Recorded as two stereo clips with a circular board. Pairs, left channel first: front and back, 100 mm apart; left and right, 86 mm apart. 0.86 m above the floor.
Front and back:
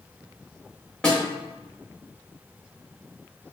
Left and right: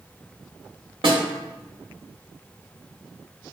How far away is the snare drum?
About 0.9 m.